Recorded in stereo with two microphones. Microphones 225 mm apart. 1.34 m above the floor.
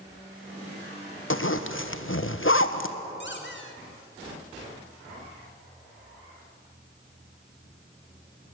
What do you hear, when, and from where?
1.3 s a zipper: 65° left (ahead or behind), 1.2 m
3.2 s a squeak: 55° left (ahead or behind), 2.5 m